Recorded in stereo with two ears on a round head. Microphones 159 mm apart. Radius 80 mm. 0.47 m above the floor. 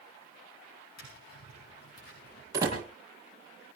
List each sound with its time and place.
1.0 s tapping: 60° left (ahead or behind), 8.5 m
2.5 s a door slam: 20° right (ahead or behind), 9 m